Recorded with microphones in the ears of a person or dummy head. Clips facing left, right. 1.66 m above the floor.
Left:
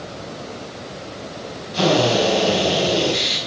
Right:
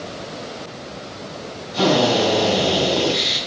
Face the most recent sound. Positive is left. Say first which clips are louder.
# even
turn(degrees=25)  # may be behind; listen again after turning